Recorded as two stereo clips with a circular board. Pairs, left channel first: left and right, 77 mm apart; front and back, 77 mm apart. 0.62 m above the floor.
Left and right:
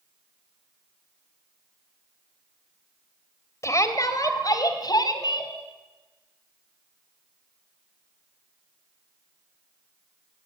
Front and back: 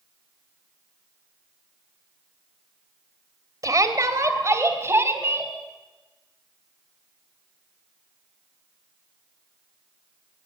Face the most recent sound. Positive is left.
turn(degrees=120)